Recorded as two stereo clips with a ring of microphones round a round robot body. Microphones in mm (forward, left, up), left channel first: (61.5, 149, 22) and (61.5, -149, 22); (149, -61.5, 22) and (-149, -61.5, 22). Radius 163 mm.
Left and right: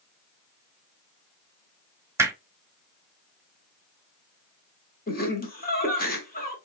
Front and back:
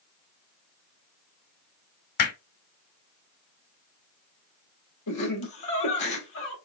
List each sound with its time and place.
2.2 s hammering: 10° right, 1.3 m
5.1 s laughter: 30° left, 2.5 m